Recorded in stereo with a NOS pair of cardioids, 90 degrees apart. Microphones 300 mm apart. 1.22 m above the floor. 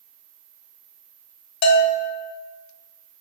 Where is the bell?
65° left, 0.9 m.